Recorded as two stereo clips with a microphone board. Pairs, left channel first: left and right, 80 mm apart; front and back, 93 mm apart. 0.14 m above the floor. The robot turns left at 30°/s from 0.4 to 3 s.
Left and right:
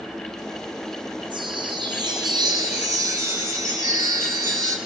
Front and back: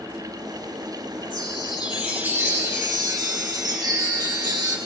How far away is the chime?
About 2 m.